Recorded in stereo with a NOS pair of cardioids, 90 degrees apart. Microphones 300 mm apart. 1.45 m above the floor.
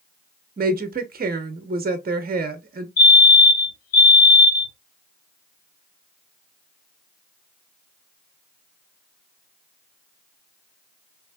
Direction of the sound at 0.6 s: 30° right.